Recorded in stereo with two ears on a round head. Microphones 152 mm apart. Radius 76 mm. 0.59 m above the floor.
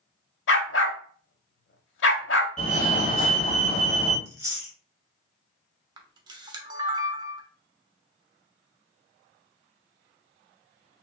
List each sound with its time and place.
0.5 s a dog barking: 75° left (ahead or behind), 0.8 m
2.6 s a fire alarm: 45° left (ahead or behind), 2 m
4.2 s chewing: 20° right (ahead or behind), 2 m
6.0 s a camera shutter: 25° right (ahead or behind), 0.9 m